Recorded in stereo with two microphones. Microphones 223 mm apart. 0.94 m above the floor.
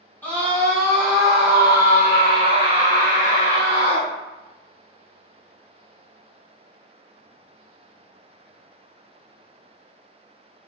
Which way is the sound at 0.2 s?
10° left (ahead or behind).